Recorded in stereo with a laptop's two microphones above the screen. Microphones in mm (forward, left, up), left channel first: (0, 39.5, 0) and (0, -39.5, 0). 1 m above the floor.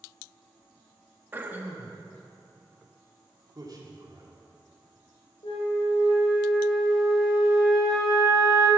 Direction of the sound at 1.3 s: 25° right (ahead or behind).